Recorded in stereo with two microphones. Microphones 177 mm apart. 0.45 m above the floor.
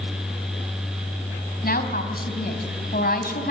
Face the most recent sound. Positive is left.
turn(degrees=65)  # may be behind; listen again after turning